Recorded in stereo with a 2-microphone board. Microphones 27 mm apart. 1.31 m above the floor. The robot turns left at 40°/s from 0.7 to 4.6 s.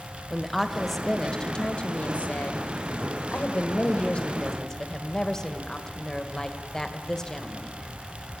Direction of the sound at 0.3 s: 175° left.